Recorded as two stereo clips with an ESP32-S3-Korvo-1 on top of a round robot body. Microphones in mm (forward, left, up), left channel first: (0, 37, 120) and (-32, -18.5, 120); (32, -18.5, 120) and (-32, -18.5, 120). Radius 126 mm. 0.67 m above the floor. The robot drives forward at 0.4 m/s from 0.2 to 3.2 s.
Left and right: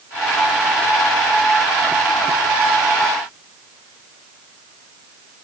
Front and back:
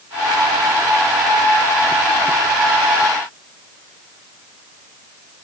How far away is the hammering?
I don't hear hammering.